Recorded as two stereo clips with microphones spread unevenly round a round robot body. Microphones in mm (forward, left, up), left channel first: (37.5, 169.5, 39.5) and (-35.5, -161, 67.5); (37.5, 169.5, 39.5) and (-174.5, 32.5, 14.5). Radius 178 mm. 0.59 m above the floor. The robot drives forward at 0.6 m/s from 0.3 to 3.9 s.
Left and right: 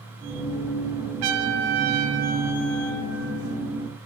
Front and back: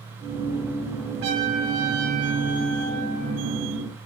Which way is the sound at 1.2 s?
95° right.